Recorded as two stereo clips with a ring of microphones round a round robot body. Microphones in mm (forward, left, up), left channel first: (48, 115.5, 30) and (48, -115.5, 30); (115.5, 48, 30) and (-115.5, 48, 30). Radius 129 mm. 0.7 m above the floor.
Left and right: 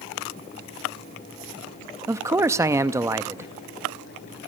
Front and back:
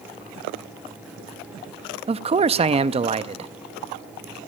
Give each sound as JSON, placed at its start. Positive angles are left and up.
{"t": 2.1, "sound": "a man speaking", "azimuth_deg": -155, "distance_m": 0.6}